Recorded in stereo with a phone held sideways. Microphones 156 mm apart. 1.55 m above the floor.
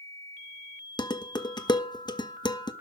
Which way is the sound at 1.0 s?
25° left (ahead or behind).